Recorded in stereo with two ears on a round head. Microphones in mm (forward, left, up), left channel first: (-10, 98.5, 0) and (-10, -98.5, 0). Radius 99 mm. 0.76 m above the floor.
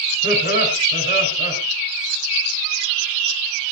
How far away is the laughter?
About 6 m.